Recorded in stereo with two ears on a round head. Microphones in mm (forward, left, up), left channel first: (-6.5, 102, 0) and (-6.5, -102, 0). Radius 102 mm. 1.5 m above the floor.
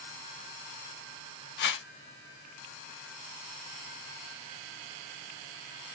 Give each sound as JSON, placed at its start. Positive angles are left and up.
{"t": 1.6, "sound": "a whoosh", "side_deg": 55, "distance_m": 1.0}